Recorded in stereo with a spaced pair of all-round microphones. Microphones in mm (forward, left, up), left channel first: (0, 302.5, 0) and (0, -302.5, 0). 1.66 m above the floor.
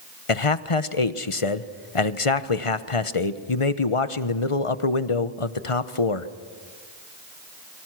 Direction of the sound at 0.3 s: 55° left (ahead or behind).